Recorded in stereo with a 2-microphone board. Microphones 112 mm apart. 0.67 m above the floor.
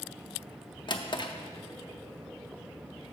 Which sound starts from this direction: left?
A drawer, at 0.9 s.